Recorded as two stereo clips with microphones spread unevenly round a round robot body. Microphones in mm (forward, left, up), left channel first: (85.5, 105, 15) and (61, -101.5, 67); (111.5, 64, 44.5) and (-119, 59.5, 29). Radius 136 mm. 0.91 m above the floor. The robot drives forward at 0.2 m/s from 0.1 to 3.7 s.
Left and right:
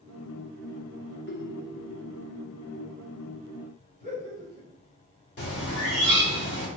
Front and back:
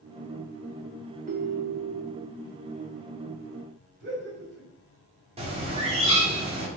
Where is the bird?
115° left, 2.5 m.